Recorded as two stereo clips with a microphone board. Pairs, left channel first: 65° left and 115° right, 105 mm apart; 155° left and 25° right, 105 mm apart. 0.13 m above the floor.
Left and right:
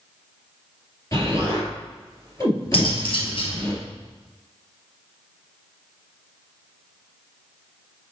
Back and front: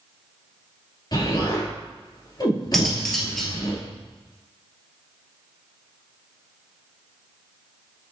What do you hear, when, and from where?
1.1 s an explosion: 120° left, 2.5 m
2.7 s cutlery clinking: 70° left, 1.7 m